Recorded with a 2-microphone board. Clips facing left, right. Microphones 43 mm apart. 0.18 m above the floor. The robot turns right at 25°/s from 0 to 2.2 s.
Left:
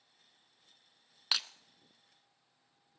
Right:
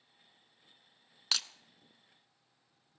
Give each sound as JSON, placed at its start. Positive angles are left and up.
{"t": 1.3, "sound": "breaking glass", "side_deg": 10, "distance_m": 0.8}